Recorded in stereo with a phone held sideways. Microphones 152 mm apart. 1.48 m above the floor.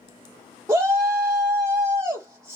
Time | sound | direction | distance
0.7 | a shout | 20° right (ahead or behind) | 0.6 m